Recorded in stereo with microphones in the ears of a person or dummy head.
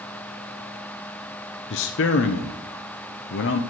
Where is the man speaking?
65° left (ahead or behind), 0.6 m.